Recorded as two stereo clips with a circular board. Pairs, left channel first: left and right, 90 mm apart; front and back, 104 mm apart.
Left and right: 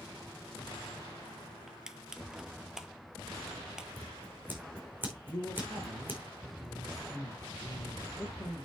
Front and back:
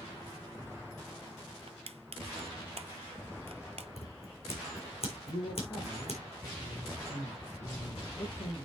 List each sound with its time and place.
1.7 s crushing: 170° right, 0.8 m
4.0 s scissors: 20° right, 4.5 m
5.3 s a man speaking: 15° left, 4 m